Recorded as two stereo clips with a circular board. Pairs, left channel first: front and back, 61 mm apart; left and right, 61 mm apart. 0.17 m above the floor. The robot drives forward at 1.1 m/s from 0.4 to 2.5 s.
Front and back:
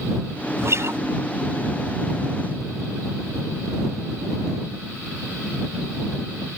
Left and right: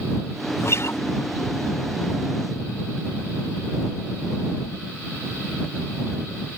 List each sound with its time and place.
0.6 s a guitar: 135° left